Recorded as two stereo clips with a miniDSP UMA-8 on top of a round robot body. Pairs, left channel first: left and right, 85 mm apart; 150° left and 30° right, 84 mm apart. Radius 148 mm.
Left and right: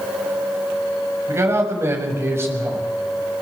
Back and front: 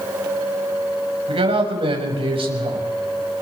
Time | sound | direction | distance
1.3 | a man speaking | 30° right | 6.5 m